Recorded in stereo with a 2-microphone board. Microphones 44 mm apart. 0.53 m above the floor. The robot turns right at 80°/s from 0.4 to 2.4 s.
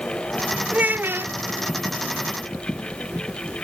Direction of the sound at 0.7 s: 150° right.